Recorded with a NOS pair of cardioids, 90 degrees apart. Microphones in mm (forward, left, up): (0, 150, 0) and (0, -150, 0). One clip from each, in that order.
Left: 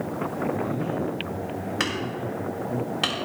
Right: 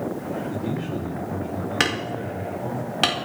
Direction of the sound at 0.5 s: 65° right.